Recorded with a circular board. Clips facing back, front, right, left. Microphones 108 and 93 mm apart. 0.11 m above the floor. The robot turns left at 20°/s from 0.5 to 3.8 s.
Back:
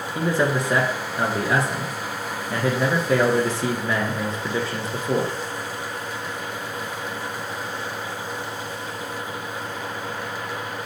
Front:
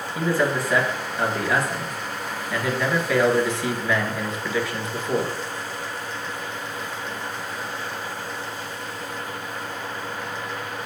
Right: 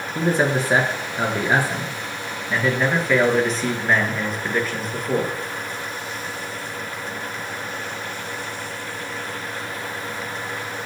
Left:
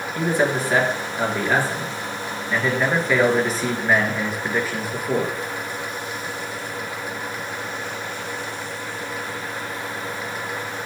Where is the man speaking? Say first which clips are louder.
Back 1 dB, right 1 dB; 125° right, 1.6 m; by 5.3 s 165° left, 1.6 m.